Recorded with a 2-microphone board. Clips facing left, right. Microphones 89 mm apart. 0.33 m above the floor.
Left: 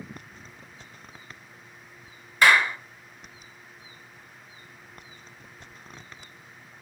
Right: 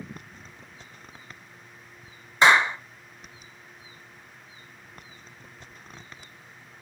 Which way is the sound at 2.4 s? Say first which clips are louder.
Right 1 dB; 25° right (ahead or behind).